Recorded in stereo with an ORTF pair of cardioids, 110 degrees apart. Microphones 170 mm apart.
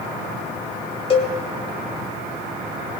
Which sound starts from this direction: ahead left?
A cowbell, at 1.1 s.